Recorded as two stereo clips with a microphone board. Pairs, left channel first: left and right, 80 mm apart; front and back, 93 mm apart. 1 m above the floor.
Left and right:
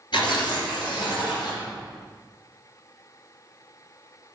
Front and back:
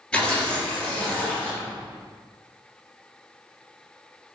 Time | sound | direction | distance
0.1 | tearing paper | 80° left | 2.5 m